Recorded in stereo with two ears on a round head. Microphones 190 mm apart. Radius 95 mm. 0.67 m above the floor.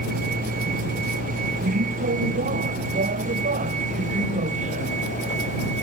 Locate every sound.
0.0 s a vehicle: 40° right (ahead or behind); by 5.8 s 35° right (ahead or behind)